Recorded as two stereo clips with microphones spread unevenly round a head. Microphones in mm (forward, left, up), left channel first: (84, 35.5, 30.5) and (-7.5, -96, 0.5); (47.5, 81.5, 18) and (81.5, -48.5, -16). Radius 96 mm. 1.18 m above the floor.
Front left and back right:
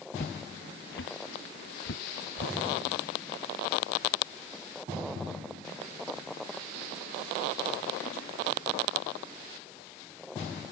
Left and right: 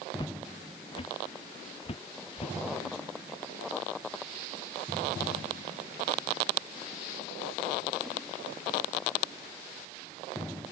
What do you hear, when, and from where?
0.2 s footsteps: 55° left; by 2.6 s 65° left